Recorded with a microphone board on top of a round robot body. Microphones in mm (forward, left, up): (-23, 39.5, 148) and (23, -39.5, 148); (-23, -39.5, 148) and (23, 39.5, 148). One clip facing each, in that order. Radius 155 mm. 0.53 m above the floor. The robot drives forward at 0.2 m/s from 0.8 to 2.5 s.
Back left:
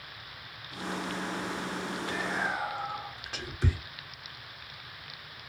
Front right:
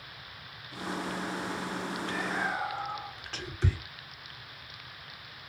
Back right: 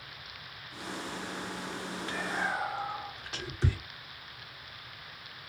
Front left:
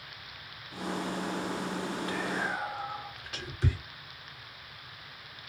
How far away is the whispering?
About 1.5 m.